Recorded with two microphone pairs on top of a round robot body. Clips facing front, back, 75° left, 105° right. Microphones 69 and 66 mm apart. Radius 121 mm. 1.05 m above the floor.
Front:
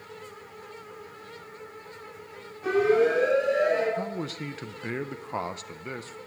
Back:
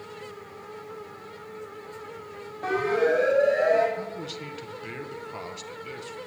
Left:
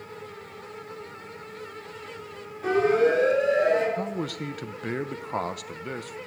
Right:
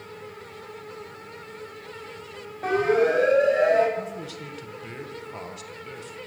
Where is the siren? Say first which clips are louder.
Front 2 dB, even; 150° right, 9.5 m; by 3.9 s 145° right, 9 m.